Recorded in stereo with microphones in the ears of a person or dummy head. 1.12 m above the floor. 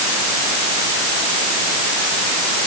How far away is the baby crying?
I don't hear a baby crying.